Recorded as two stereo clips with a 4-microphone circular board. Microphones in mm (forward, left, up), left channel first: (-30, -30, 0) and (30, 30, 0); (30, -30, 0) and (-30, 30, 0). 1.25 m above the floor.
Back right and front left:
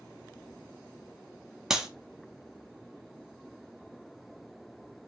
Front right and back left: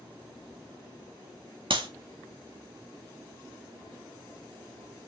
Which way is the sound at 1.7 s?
125° left.